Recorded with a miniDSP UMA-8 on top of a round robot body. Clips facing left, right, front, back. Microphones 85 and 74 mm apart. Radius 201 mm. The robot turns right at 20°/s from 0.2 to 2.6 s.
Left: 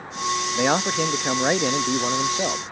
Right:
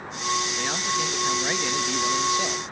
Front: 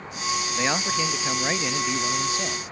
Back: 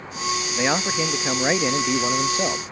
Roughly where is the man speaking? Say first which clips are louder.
Left 6 dB, back 4 dB; left.